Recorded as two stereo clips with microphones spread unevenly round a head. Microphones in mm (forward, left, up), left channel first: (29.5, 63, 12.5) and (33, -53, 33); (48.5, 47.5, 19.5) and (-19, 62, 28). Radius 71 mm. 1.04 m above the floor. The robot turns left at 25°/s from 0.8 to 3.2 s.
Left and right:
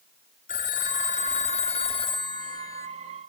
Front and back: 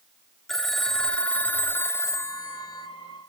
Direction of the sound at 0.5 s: 75° left.